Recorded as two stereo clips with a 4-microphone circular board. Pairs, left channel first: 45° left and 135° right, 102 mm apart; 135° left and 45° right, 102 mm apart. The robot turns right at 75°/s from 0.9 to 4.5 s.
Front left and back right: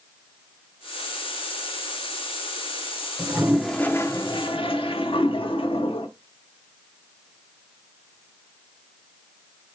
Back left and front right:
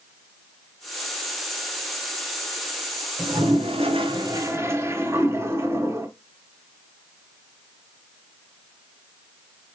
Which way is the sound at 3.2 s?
80° right.